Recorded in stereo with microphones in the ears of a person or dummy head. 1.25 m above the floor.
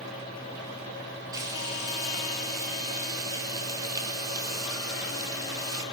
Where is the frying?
15° right (ahead or behind), 3.5 m.